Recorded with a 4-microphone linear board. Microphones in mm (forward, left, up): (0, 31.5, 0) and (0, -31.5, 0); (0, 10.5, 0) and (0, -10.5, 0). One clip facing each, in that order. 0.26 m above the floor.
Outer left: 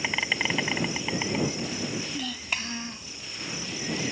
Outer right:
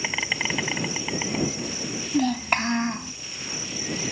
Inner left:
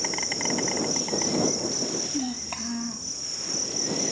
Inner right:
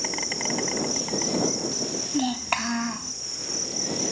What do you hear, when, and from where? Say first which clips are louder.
0.0 s an insect: even, even; centre (ahead or behind)
2.1 s a child speaking: outer right 10 dB, inner right 5 dB; 50° right (ahead or behind)